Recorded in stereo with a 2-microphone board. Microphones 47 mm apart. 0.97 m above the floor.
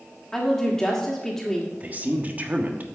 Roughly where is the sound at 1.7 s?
Right.